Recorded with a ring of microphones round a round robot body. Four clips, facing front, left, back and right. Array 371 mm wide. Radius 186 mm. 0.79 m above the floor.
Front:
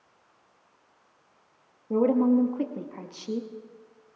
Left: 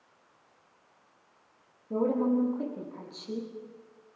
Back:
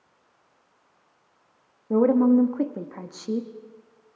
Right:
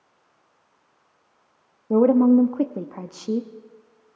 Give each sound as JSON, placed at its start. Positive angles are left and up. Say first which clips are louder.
{"t": 1.9, "sound": "a woman speaking", "louder": "right 11 dB, back 3 dB", "azimuth_deg": -105, "distance_m": 1.3}